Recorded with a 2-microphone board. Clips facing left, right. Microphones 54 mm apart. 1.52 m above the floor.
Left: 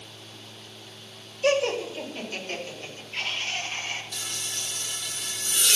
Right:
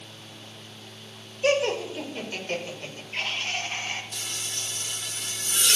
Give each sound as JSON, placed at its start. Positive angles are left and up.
{"t": 1.4, "sound": "laughter", "side_deg": -10, "distance_m": 5.0}
{"t": 4.1, "sound": "frying", "side_deg": -30, "distance_m": 3.5}